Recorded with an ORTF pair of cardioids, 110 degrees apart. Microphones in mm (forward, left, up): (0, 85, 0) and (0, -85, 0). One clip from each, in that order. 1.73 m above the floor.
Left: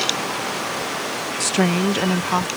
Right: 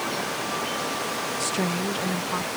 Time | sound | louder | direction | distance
1.4 | a woman speaking | left 10 dB | 35° left | ?